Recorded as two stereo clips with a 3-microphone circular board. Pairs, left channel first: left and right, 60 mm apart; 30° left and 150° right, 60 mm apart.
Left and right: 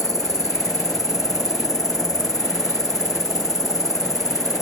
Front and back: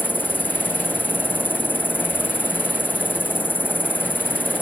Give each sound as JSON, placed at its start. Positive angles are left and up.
{"t": 0.0, "sound": "an insect", "azimuth_deg": 90}